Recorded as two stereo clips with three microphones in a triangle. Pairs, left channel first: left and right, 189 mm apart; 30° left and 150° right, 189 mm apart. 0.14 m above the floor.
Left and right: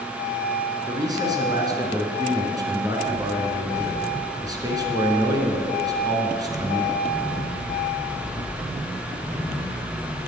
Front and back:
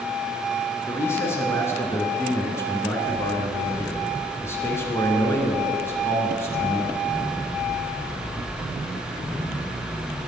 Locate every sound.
0.9 s a man speaking: 35° right, 1.8 m